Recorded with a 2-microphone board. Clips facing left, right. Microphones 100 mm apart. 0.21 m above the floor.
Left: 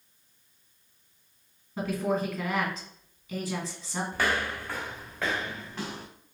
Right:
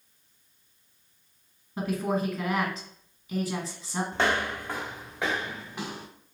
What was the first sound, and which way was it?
A woman speaking, 5° right (ahead or behind).